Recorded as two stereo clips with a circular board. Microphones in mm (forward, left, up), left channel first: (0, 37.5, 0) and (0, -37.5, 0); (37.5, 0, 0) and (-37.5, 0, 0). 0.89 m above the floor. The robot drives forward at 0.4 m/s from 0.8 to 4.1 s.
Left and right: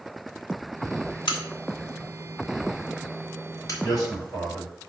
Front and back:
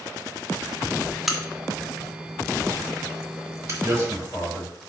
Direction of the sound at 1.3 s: 95° left.